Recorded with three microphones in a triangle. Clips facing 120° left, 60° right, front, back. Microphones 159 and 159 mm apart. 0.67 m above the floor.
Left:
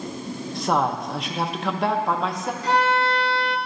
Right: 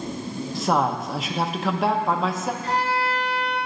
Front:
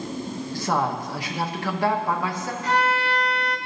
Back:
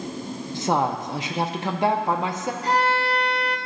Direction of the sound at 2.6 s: 120° left.